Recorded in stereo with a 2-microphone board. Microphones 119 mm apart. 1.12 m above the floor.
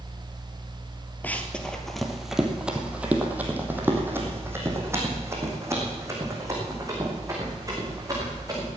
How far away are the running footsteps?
About 1.6 m.